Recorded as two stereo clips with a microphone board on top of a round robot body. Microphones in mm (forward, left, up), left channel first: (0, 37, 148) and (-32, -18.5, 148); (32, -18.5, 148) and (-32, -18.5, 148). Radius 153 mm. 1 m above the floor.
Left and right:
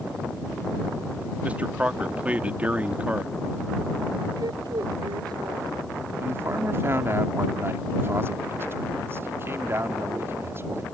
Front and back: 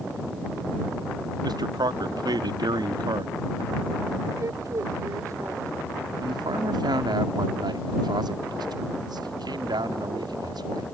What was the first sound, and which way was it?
A man speaking, 170° left.